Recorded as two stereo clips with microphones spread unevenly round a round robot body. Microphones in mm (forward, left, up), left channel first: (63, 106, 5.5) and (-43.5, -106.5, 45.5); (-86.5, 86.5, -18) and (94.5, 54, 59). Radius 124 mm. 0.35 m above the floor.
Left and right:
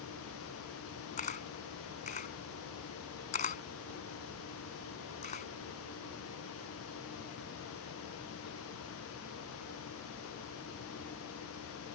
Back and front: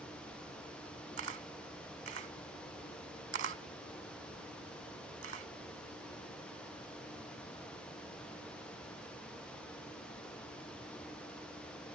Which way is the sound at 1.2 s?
5° left.